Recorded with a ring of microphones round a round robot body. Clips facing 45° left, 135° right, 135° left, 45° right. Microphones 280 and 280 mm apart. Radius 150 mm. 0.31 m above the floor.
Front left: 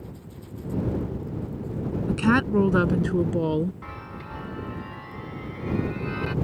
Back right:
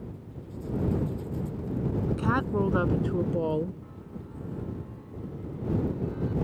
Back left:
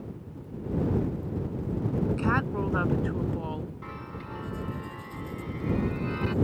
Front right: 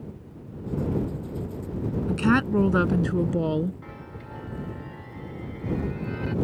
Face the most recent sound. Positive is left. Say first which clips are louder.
# front left 2 dB, back left 1 dB
turn(degrees=60)